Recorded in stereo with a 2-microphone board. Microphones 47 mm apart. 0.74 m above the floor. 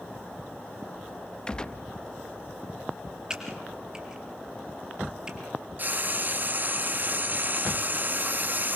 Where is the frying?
40° right (ahead or behind), 0.9 m.